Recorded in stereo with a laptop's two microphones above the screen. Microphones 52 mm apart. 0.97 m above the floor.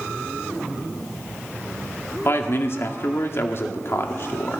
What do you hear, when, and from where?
2.2 s a man speaking: 55° left (ahead or behind), 1.9 m